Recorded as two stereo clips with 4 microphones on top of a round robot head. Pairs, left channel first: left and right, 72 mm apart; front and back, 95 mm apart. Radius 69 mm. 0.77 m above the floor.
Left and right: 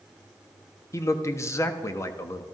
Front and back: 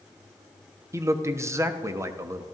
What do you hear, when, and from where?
0.9 s a man speaking: 130° left, 1.2 m